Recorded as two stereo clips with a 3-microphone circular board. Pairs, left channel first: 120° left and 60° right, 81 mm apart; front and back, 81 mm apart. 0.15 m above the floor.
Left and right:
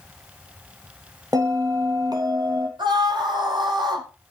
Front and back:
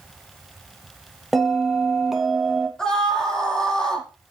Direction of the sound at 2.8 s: 80° right.